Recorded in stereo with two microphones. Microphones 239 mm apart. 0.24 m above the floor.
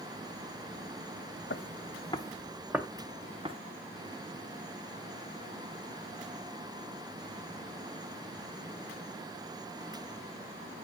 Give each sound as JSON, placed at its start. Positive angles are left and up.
{"t": 1.5, "sound": "footsteps", "side_deg": 55, "distance_m": 1.1}